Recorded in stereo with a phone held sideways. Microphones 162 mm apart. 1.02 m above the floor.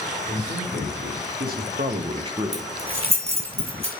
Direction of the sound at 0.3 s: 75° right (ahead or behind).